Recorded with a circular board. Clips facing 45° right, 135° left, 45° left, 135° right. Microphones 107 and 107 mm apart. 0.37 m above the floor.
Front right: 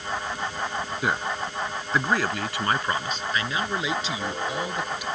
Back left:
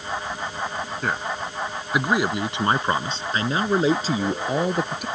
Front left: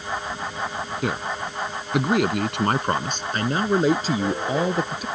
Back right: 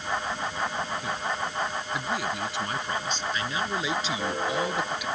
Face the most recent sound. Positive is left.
turn(degrees=95)